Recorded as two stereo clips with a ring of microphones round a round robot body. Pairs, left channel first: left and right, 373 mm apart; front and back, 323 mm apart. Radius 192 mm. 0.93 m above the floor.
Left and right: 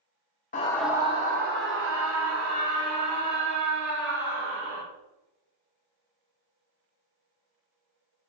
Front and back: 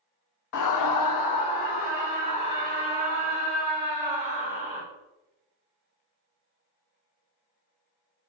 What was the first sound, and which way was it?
A scream, 25° left.